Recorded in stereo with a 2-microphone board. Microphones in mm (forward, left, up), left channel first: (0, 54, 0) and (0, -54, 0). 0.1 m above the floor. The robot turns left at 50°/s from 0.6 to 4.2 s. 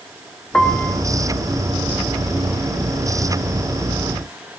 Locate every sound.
0.5 s a piano: 10° left (ahead or behind), 1.7 m; by 1.0 s 15° left (ahead or behind), 1.7 m